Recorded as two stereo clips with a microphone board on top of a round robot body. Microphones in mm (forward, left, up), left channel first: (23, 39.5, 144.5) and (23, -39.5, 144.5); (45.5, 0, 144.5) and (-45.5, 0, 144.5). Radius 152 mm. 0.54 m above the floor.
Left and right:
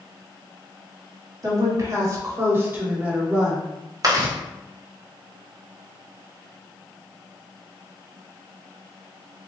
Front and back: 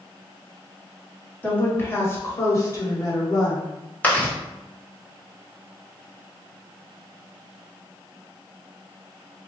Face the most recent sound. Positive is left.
turn(degrees=-70)